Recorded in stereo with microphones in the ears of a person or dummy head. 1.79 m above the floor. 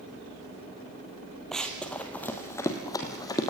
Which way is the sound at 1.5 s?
Centre (ahead or behind).